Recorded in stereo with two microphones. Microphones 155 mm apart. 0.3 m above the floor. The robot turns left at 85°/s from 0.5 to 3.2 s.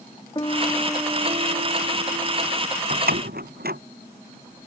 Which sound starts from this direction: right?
A door slam, at 2.9 s.